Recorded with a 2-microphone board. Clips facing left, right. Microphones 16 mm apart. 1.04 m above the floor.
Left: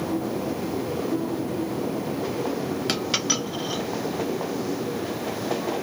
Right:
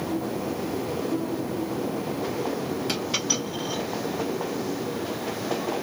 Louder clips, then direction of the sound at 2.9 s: Left 3 dB; 45° left (ahead or behind).